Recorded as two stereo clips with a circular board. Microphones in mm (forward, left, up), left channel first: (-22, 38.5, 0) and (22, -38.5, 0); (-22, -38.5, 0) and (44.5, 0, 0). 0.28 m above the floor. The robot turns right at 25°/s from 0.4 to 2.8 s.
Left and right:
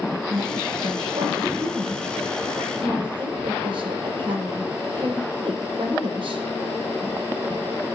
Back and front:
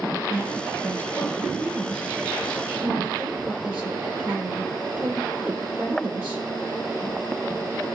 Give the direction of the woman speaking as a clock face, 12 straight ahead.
3 o'clock.